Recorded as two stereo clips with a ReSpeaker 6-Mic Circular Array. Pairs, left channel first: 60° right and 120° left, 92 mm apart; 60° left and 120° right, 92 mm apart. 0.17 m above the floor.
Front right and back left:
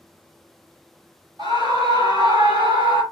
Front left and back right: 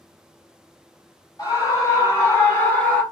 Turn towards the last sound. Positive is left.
turn(degrees=130)